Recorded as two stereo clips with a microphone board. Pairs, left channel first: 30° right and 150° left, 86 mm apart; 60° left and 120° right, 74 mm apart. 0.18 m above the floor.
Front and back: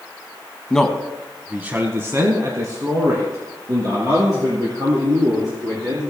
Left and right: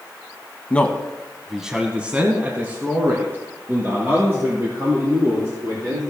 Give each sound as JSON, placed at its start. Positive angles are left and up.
{"t": 0.7, "sound": "a man speaking", "azimuth_deg": 35, "distance_m": 1.1}